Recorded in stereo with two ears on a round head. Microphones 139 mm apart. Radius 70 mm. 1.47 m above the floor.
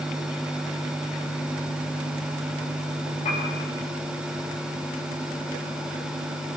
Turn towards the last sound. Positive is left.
turn(degrees=45)  # may be behind; listen again after turning